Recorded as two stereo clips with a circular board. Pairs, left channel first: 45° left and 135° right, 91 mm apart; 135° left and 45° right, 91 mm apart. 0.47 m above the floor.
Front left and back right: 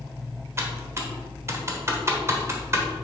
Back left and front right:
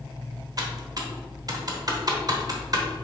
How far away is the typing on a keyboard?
About 1.1 m.